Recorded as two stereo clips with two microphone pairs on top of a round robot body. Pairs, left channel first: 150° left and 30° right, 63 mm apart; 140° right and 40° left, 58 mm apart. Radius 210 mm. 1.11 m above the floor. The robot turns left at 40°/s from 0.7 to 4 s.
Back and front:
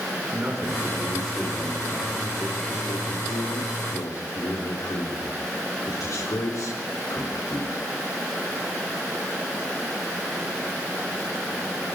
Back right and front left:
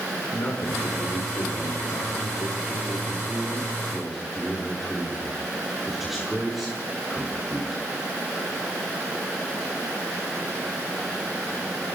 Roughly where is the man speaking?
Right.